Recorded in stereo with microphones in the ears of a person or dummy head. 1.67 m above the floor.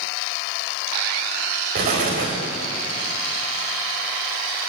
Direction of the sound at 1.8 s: 55° right (ahead or behind).